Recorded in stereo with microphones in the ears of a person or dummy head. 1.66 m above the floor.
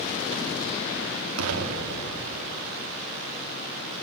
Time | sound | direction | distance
1.4 | an explosion | 80° right | 3.5 m